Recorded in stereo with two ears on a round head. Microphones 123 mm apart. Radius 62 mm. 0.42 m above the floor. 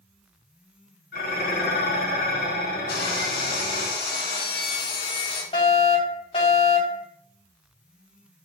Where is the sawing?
75° left (ahead or behind), 2 m.